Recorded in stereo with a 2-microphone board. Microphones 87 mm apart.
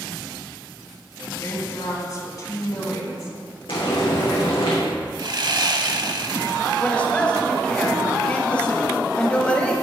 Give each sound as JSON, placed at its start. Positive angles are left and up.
{"t": 1.4, "sound": "a woman speaking", "side_deg": 45, "distance_m": 2.5}
{"t": 3.7, "sound": "frying", "side_deg": 80, "distance_m": 3.5}
{"t": 5.2, "sound": "sawing", "side_deg": -55, "distance_m": 0.6}
{"t": 6.8, "sound": "a man speaking", "side_deg": 15, "distance_m": 1.1}